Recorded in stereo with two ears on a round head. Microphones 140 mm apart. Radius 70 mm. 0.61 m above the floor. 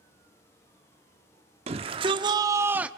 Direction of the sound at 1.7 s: 40° right (ahead or behind).